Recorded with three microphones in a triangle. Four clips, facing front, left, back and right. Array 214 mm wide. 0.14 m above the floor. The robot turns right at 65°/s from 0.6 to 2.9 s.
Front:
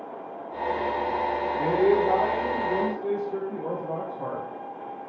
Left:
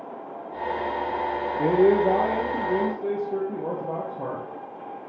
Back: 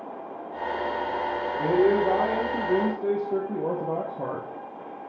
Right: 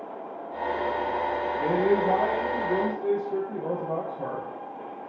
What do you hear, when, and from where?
1.6 s a man speaking: 80° left, 3 m; by 5.0 s 165° left, 3 m